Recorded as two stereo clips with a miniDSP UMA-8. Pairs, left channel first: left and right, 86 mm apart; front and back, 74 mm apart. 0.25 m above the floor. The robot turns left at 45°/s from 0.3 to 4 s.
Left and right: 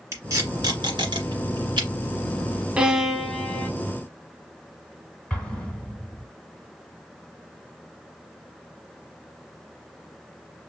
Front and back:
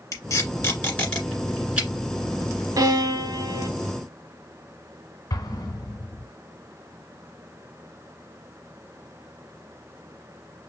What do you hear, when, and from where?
0.1 s tape being pulled: 35° right, 1.7 m; by 1.9 s 110° right, 1.7 m
2.8 s a violin: 165° right, 0.8 m; by 3.7 s 155° left, 0.8 m
5.3 s an explosion: 10° left, 1.4 m